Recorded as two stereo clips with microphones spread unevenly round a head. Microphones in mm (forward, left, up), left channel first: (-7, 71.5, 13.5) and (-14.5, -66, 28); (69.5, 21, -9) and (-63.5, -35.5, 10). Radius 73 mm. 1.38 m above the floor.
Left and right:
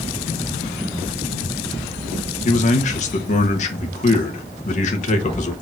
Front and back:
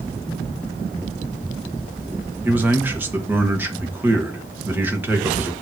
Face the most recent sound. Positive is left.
turn(degrees=125)